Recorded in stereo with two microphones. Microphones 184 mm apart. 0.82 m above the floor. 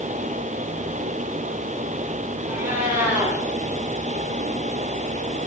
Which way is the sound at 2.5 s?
10° right (ahead or behind).